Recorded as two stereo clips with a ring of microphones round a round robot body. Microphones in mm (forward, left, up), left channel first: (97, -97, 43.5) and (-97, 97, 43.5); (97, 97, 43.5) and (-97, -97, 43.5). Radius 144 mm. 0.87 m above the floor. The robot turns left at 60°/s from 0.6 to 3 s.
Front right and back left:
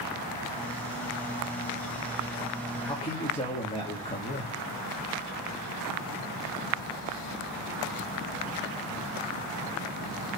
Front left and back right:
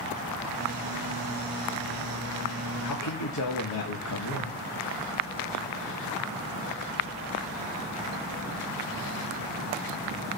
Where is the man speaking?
35° left, 1.7 m; by 4.6 s 25° left, 1.7 m.